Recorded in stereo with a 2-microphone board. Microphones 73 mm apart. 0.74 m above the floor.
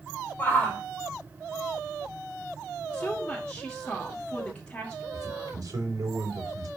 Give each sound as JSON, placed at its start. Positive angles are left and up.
{"t": 0.4, "sound": "a shout", "side_deg": 25, "distance_m": 3.0}
{"t": 2.9, "sound": "a woman speaking", "side_deg": 15, "distance_m": 1.9}
{"t": 5.1, "sound": "a man speaking", "side_deg": -60, "distance_m": 3.0}